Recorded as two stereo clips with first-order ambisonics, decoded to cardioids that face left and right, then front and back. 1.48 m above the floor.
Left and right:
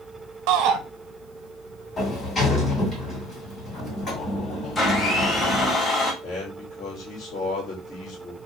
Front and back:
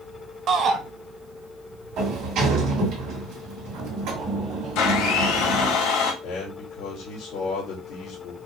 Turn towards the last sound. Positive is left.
turn(degrees=50)